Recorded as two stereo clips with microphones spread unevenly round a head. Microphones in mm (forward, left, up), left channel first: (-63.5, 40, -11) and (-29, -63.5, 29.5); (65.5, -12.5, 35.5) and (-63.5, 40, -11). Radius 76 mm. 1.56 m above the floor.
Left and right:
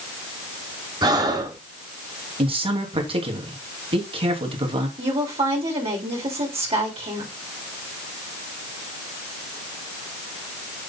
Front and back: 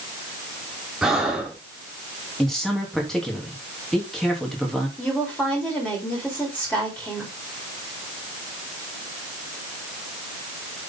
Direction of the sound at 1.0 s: 105° right.